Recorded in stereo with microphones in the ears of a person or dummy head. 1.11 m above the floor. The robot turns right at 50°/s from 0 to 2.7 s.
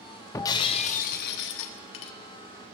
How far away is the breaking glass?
About 0.9 m.